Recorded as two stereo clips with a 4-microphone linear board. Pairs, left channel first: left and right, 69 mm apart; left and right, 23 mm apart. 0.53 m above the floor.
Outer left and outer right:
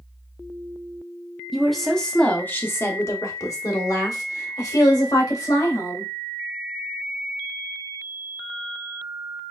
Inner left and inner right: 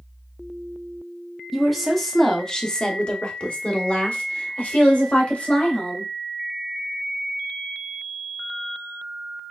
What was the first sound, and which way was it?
A woman speaking, 5° right (ahead or behind).